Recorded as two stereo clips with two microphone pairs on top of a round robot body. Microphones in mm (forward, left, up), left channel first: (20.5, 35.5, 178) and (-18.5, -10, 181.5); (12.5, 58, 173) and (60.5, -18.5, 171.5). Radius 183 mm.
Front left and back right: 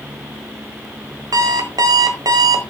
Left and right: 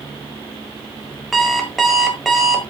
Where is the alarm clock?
150° right, 1.8 m.